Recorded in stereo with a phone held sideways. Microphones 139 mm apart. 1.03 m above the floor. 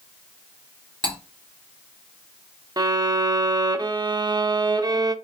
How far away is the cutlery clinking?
About 1.6 m.